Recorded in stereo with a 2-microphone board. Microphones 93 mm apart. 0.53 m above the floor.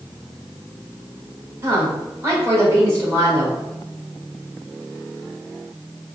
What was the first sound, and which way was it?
A woman speaking, 30° right (ahead or behind).